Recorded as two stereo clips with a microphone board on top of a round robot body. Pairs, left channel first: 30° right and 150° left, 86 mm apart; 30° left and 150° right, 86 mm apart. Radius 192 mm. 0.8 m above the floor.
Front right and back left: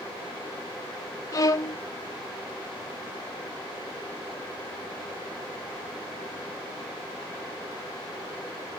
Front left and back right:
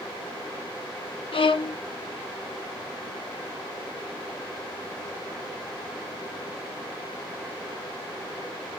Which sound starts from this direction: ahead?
A violin, at 1.3 s.